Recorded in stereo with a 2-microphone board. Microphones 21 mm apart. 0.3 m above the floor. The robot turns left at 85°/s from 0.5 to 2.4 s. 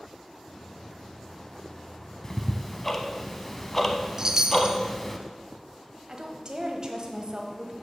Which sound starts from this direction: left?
Ticking, at 2.2 s.